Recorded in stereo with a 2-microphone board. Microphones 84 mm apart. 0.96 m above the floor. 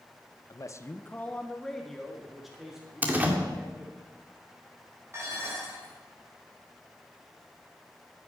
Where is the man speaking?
45° left (ahead or behind), 0.8 m; by 4.0 s 10° right (ahead or behind), 3.5 m.